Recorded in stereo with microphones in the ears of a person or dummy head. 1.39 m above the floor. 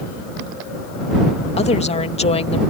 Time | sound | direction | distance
1.6 | a woman speaking | 35° left (ahead or behind) | ?